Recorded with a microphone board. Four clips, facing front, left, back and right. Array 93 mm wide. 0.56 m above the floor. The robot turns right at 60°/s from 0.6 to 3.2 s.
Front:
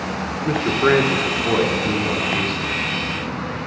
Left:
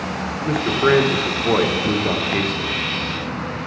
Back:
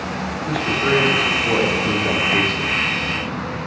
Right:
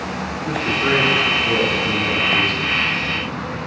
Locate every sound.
0.5 s a man speaking: 25° left, 1.1 m; by 2.8 s 160° left, 1.1 m